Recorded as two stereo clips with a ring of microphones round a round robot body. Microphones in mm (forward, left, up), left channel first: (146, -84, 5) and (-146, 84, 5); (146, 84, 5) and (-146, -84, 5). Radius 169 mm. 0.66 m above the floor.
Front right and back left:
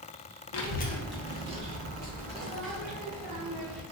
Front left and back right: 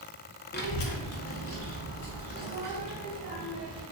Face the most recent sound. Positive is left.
turn(degrees=95)